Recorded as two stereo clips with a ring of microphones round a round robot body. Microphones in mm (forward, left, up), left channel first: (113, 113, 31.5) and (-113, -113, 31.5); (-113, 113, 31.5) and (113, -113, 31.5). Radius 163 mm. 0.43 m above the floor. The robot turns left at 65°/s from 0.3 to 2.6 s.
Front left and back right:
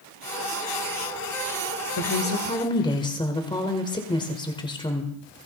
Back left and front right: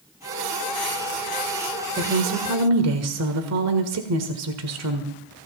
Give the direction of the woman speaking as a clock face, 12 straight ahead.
12 o'clock.